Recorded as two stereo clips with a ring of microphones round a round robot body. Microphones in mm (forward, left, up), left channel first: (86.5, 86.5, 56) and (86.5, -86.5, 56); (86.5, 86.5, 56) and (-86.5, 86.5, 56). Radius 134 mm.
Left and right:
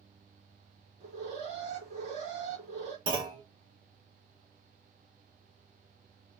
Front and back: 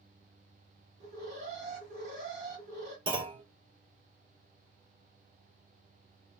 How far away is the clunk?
About 1.1 m.